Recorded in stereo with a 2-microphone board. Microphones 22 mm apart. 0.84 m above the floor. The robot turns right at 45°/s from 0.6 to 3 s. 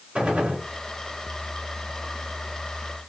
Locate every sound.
0.1 s a gunshot: 70° right (ahead or behind), 2.5 m